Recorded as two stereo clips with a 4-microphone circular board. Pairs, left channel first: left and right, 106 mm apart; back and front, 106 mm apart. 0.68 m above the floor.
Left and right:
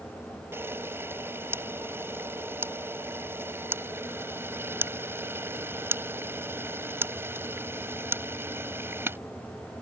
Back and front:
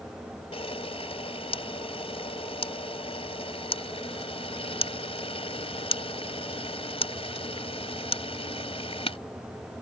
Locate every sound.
0.5 s a camera shutter: 160° right